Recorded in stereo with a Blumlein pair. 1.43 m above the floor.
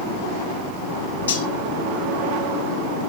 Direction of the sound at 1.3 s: 70° left.